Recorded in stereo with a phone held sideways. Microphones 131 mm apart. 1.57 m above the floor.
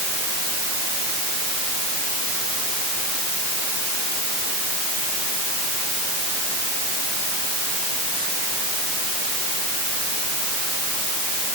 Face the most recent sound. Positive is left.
No sound to turn to.